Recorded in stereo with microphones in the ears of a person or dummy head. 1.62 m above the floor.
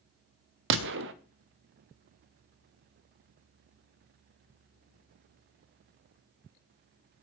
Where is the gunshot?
65° right (ahead or behind), 0.6 m.